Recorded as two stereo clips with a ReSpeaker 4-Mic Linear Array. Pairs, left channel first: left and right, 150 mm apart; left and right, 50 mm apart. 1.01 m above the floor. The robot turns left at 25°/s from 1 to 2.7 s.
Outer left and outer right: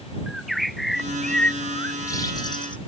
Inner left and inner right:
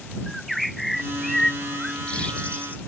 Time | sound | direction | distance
0.3 | a bird | straight behind | ?